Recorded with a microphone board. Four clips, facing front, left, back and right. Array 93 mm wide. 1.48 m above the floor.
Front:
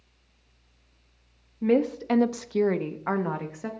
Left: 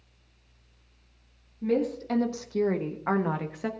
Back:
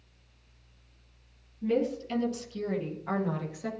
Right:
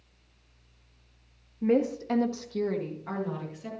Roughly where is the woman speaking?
Ahead right.